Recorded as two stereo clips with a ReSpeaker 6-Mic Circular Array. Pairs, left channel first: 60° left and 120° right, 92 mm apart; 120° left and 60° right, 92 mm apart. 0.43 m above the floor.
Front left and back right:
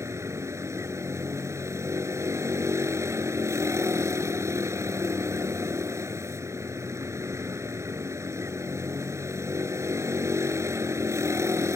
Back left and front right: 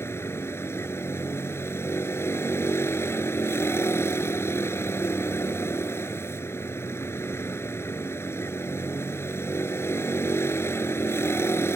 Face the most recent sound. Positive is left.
turn(degrees=180)